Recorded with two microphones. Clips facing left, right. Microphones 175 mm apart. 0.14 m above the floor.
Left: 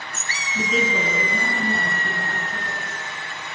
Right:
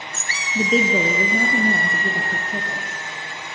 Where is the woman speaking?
30° right (ahead or behind), 1.4 m; by 2.9 s 60° right (ahead or behind), 3 m.